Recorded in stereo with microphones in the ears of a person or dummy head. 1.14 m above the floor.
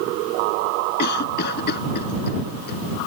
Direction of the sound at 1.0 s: 60° left (ahead or behind).